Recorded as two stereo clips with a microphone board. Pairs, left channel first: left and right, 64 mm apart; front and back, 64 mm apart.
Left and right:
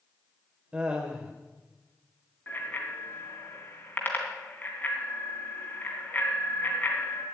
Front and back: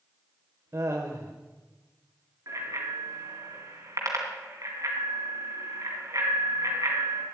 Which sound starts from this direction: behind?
Laughter, at 0.7 s.